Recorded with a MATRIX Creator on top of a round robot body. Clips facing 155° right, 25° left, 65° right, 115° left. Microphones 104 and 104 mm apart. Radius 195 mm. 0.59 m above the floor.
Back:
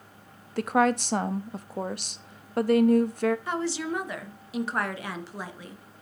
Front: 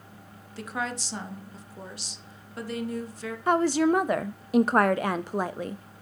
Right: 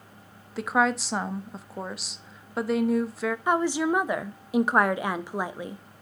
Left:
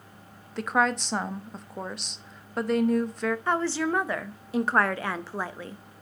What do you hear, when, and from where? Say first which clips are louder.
0.6 s a woman speaking: back 10 dB, right 1 dB; 155° right, 0.8 m
3.5 s a woman speaking: front 8 dB, right 4 dB; 5° left, 0.8 m